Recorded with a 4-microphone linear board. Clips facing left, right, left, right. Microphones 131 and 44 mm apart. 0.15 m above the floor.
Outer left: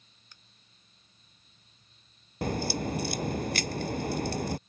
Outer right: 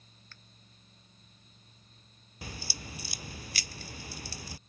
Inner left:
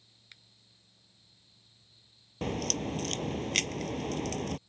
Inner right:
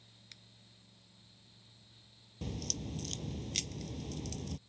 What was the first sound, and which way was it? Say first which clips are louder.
A finger snap: outer right 2 dB, inner left 3 dB; 15° left (ahead or behind).